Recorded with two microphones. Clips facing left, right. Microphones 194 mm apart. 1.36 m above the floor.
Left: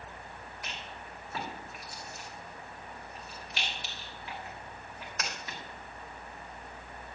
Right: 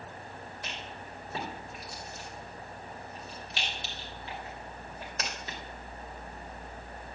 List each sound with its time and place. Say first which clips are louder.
0.6 s a rattle: right 2 dB; 30° right (ahead or behind), 2.5 m